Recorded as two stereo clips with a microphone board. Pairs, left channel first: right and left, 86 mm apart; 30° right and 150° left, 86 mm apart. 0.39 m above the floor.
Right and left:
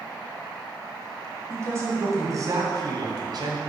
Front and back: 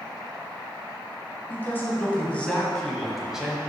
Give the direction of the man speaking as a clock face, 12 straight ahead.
11 o'clock.